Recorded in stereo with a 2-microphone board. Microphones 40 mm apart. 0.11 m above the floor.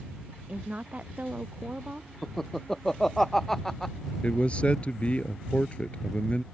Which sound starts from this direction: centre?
Laughter, at 2.2 s.